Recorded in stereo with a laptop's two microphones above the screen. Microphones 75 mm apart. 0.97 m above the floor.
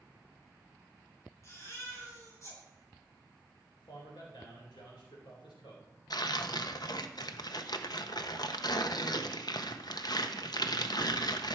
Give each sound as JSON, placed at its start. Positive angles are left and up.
{"t": 1.4, "sound": "a baby crying", "side_deg": 40, "distance_m": 5.5}
{"t": 3.8, "sound": "a man speaking", "side_deg": 85, "distance_m": 3.5}
{"t": 6.1, "sound": "tearing paper", "side_deg": 65, "distance_m": 0.7}